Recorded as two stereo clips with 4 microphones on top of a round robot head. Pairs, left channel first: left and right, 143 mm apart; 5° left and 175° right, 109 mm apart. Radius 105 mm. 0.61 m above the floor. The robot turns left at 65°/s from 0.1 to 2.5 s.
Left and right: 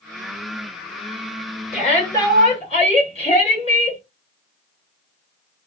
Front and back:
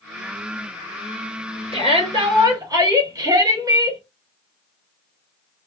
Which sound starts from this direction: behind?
A shout, at 1.7 s.